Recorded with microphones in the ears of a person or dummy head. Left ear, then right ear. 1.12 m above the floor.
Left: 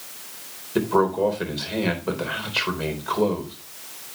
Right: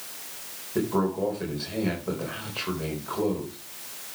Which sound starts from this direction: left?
A man speaking, at 0.8 s.